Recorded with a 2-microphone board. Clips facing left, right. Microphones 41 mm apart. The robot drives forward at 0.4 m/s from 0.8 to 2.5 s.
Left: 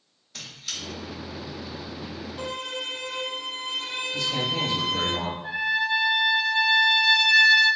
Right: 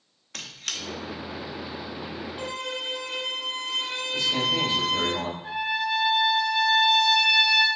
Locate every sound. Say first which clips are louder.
0.3 s a squeak: right 2 dB; 60° right (ahead or behind), 0.7 m
2.4 s a violin: left 1 dB; 10° right (ahead or behind), 2 m
4.1 s a man speaking: right 3 dB; 5° right (ahead or behind), 2 m
5.4 s a trumpet: left 3 dB; 5° right (ahead or behind), 2 m